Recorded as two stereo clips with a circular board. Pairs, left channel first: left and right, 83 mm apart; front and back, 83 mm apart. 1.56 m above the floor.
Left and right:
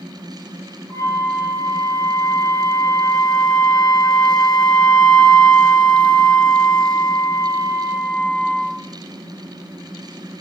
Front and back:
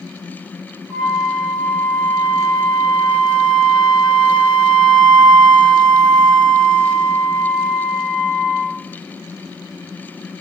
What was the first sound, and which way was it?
A flute, 80° left.